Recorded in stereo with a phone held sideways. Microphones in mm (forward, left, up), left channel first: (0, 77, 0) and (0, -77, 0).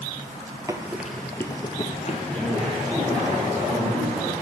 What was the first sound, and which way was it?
Running footsteps, 20° right (ahead or behind).